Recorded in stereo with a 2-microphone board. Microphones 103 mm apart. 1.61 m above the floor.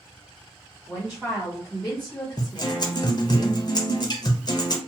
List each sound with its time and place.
0.9 s a woman speaking: 15° right (ahead or behind), 1.2 m; by 3.1 s 55° left (ahead or behind), 0.8 m
2.4 s a guitar: 40° left (ahead or behind), 0.6 m